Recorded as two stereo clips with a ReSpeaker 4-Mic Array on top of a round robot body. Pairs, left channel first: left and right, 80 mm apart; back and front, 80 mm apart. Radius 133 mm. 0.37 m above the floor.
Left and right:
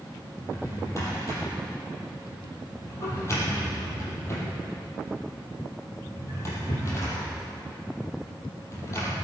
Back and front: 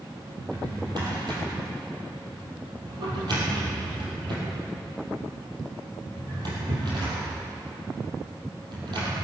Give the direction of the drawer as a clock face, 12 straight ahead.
11 o'clock.